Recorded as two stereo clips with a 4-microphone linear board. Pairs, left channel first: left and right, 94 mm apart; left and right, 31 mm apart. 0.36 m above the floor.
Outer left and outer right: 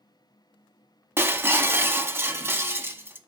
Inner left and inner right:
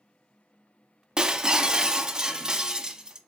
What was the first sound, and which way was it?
Breaking glass, 25° right (ahead or behind).